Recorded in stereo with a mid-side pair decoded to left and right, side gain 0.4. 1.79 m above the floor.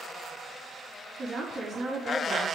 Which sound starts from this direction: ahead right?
A woman speaking, at 1.2 s.